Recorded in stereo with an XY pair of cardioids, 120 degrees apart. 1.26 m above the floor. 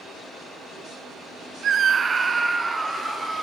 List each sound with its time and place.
1.6 s a scream: 50° right, 1.1 m; by 3.4 s straight ahead, 3 m